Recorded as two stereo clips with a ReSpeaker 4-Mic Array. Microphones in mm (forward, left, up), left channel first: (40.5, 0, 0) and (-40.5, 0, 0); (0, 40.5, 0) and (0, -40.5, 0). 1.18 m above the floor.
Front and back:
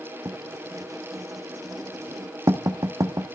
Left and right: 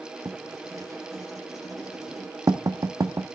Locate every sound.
0.2 s writing: 135° right, 1.1 m